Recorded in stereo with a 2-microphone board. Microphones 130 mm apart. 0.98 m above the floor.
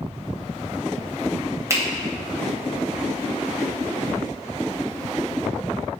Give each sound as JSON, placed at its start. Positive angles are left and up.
{"t": 1.7, "sound": "a finger snap", "side_deg": -25, "distance_m": 0.8}